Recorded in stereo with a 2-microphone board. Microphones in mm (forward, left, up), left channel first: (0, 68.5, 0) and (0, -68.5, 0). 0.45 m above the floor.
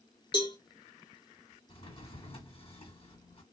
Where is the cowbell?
35° left (ahead or behind), 0.7 m.